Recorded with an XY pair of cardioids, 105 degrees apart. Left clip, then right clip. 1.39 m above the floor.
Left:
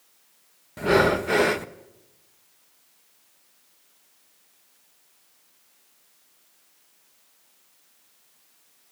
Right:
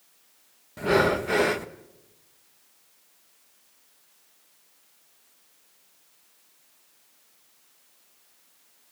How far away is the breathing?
About 1.1 m.